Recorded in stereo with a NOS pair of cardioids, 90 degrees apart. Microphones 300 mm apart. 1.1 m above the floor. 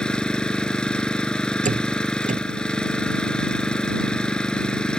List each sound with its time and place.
0.0 s an engine running: 5° left
1.6 s a door slam: 25° right